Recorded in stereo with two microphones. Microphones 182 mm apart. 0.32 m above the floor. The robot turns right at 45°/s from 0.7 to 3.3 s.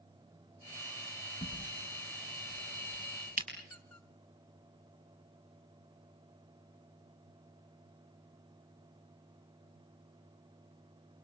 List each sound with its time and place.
1.4 s a crack: 35° left (ahead or behind), 7.5 m; by 3.5 s 50° right (ahead or behind), 7.5 m
3.6 s a squeak: 10° left (ahead or behind), 2 m